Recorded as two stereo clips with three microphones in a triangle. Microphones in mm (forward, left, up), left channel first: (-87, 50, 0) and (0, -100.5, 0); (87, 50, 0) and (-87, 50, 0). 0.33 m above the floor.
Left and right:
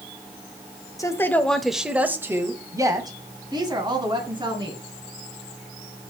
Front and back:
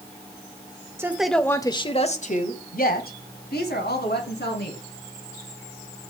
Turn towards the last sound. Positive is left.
turn(degrees=0)